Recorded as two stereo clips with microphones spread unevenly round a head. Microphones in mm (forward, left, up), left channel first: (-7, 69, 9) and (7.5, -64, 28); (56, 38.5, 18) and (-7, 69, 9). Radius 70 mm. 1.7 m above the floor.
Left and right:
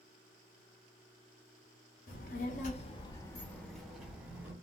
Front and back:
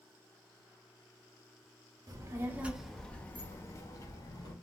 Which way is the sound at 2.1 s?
120° left.